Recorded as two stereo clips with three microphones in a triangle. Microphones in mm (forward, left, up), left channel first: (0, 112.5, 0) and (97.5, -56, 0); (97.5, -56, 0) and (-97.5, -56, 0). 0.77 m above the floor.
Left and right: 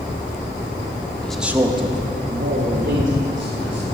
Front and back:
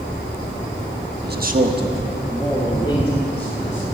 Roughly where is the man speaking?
Behind right.